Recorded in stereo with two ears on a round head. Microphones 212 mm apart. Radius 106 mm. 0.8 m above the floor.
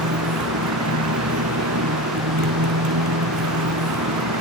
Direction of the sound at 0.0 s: 65° right (ahead or behind).